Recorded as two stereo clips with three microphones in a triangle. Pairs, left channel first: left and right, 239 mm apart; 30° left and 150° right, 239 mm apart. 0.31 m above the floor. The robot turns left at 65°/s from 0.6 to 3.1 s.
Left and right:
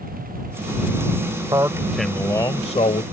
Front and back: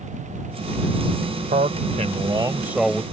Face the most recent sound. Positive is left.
turn(degrees=110)